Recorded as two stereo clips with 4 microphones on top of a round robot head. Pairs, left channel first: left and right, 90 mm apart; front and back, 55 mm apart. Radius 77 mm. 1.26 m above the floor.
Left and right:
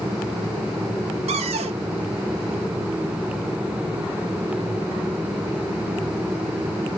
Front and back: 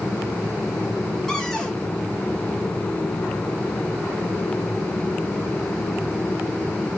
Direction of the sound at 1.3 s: 85° right.